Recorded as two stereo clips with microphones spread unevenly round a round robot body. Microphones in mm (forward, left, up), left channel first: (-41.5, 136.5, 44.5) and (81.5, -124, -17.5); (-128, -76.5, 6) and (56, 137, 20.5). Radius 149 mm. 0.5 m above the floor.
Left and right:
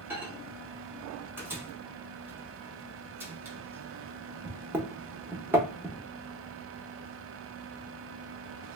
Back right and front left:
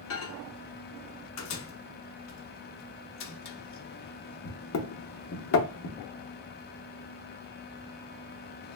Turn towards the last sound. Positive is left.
turn(degrees=-135)